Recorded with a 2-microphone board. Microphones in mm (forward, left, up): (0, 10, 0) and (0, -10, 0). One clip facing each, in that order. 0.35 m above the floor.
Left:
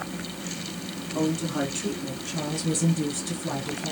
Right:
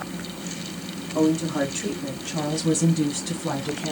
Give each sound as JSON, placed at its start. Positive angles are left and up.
{"t": 1.1, "sound": "a woman speaking", "side_deg": -20, "distance_m": 2.0}